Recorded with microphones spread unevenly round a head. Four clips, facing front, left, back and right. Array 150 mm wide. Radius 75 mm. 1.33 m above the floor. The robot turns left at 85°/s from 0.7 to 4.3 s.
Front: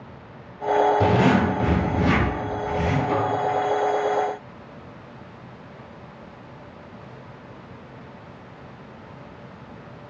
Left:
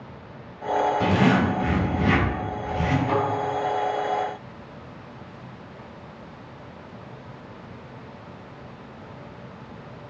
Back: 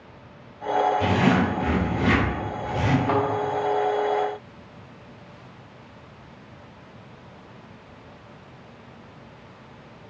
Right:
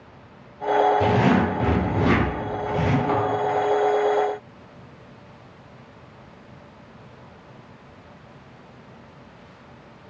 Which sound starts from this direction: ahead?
A zipper, at 1.0 s.